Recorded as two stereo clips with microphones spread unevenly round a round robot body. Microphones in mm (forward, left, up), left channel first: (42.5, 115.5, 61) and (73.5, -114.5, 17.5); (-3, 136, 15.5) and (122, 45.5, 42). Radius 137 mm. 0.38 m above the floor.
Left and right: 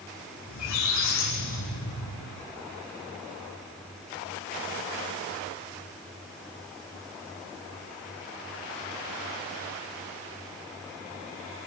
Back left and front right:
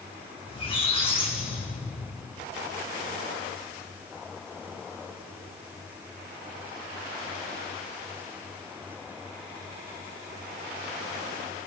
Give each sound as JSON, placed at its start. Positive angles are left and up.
{"t": 0.5, "sound": "a squeak", "azimuth_deg": 90, "distance_m": 9.0}